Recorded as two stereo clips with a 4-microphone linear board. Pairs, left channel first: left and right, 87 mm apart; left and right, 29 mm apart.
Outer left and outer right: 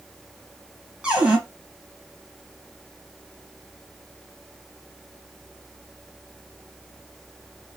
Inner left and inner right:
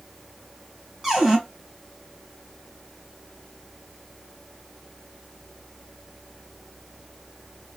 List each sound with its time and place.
1.0 s a cupboard door: 10° right (ahead or behind), 1.4 m